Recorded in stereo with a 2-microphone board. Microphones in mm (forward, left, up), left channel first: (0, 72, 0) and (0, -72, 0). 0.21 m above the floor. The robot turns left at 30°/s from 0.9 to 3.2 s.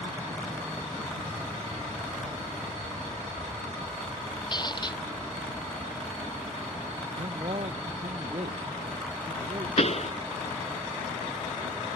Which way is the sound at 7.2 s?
50° right (ahead or behind).